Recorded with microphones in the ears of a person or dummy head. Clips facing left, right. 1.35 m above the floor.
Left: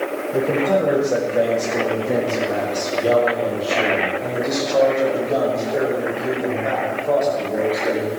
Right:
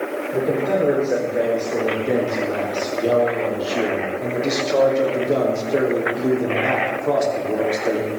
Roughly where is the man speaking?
Centre.